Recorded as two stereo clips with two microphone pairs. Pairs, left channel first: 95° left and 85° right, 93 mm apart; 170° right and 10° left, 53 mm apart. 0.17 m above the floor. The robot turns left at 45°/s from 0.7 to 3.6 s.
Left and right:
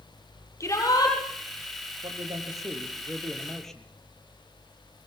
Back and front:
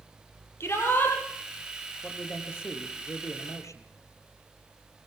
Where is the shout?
155° left, 4.5 m; by 1.2 s 135° left, 4.5 m.